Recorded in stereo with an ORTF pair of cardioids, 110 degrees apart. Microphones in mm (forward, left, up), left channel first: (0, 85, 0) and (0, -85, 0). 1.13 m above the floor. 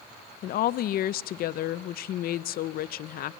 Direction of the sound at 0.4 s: 60° left.